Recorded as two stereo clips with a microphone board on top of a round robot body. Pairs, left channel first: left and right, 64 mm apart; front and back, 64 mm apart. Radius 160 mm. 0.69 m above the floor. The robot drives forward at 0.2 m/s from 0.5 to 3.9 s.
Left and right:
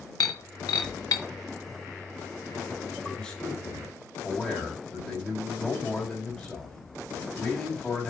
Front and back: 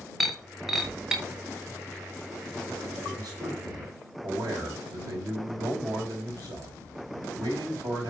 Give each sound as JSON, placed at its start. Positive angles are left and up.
{"t": 0.2, "sound": "breaking glass", "azimuth_deg": 90, "distance_m": 1.1}
{"t": 3.0, "sound": "a man speaking", "azimuth_deg": 165, "distance_m": 3.0}